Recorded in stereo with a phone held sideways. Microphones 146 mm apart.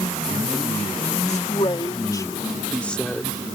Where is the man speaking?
50° left (ahead or behind); by 3.5 s centre (ahead or behind).